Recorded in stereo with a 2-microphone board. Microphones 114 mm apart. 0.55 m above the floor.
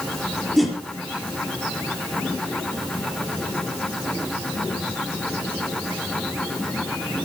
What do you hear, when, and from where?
0.6 s a whoosh: centre (ahead or behind), 4 m